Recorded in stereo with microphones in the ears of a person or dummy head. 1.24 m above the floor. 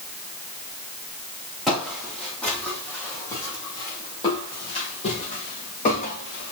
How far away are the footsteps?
About 4 m.